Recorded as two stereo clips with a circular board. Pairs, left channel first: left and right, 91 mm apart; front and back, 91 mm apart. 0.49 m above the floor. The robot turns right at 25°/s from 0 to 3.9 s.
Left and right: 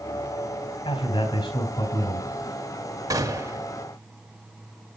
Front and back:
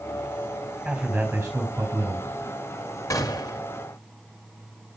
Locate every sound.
0.8 s a man speaking: 95° left, 4 m; by 2.3 s 135° left, 4 m
3.1 s a gunshot: 45° right, 2.5 m; by 3.6 s 35° right, 2.5 m